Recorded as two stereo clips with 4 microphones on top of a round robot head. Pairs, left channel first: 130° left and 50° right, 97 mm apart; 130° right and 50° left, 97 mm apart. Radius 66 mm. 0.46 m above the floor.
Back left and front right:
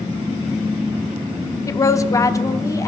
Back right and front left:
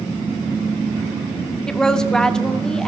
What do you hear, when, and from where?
1.7 s a woman speaking: 155° left, 0.8 m